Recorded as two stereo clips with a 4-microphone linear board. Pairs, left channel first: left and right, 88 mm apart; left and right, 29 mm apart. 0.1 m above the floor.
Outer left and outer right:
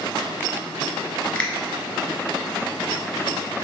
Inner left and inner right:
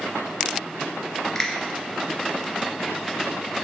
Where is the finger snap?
10° left (ahead or behind), 1.0 m.